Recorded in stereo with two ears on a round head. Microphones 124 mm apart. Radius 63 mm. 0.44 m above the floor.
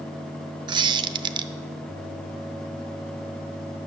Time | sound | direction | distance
0.7 | a squeak | 35° right (ahead or behind) | 0.6 m